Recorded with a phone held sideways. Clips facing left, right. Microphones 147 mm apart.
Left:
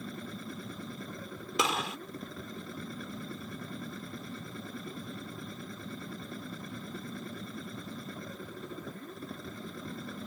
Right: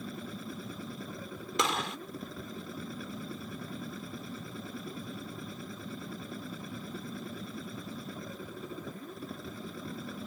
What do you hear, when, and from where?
0.0 s a machine running: 5° right (ahead or behind)
1.6 s a gunshot: 5° left (ahead or behind)